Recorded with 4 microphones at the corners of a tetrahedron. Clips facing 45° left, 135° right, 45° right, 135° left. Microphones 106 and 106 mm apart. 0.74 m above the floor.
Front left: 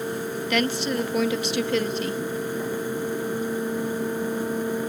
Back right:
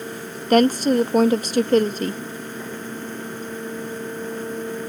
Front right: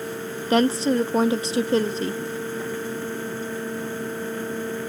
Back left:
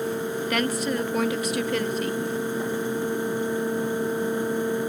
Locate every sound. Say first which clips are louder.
0.5 s a woman speaking: back right 10 dB, front right 8 dB; 95° right